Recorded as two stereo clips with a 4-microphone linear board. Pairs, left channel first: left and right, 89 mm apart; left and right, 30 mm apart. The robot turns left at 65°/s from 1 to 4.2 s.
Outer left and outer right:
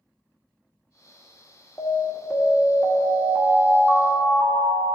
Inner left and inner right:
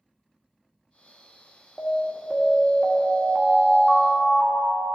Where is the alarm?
40° left, 1.4 m; by 5.0 s 115° right, 1.4 m.